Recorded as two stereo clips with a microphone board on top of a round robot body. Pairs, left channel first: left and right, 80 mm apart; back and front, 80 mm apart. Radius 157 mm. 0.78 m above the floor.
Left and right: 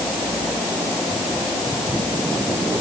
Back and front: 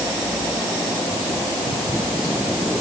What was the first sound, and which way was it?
Only background noise.